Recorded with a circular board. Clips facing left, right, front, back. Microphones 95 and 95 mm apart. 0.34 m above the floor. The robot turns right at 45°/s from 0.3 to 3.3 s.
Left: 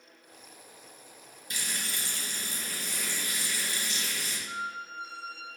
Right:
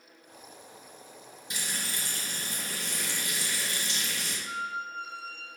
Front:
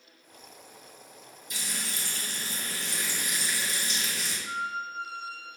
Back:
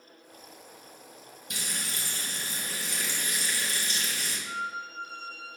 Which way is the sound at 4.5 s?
55° right.